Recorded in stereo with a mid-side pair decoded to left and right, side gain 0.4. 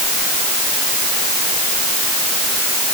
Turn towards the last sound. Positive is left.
No sound to turn to.